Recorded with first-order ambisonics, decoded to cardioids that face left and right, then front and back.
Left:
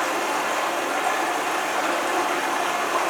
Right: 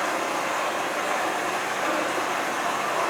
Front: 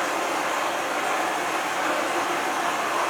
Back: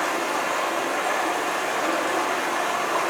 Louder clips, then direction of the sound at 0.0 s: Left 2 dB, back 1 dB; 105° left.